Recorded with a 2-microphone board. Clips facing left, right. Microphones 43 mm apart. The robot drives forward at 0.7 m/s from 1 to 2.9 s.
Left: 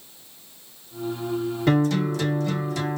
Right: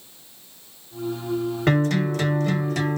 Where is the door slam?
No door slam in this recording.